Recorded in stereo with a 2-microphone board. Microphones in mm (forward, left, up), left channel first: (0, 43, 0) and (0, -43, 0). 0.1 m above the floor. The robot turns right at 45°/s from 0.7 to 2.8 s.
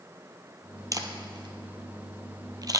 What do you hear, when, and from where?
0.9 s a camera shutter: 40° right (ahead or behind), 0.8 m